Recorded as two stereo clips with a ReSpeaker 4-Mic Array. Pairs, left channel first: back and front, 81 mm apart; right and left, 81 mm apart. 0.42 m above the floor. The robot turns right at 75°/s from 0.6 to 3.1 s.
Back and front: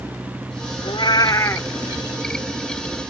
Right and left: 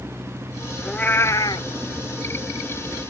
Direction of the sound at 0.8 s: 175° right.